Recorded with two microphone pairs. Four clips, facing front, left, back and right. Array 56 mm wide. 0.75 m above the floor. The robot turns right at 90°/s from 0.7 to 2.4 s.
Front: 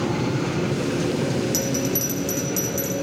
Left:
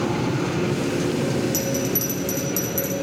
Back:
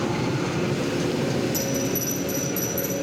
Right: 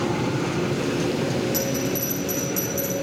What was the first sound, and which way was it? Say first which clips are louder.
A bell: left 1 dB, front 1 dB; 5° left.